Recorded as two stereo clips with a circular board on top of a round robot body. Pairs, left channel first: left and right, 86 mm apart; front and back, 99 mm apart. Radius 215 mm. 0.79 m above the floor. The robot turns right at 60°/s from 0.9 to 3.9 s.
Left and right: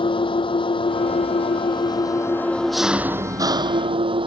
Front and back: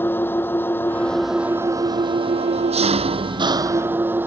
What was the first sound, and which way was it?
An engine running, 70° left.